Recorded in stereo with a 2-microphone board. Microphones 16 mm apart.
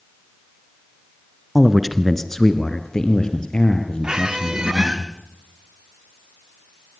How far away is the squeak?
About 3 m.